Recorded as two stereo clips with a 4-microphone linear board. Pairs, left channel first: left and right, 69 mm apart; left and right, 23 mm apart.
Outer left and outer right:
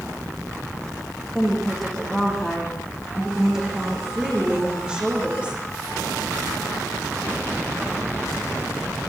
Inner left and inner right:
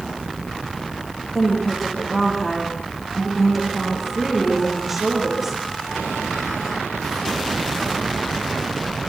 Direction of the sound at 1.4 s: 5° left (ahead or behind).